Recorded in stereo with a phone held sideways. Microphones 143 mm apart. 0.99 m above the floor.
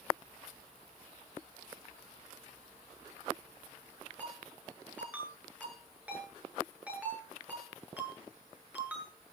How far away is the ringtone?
About 9.5 m.